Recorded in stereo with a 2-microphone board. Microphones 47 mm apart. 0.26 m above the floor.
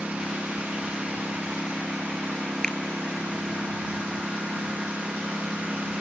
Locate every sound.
0.0 s a lawn mower: 25° right (ahead or behind)
2.6 s a finger snap: 15° left (ahead or behind)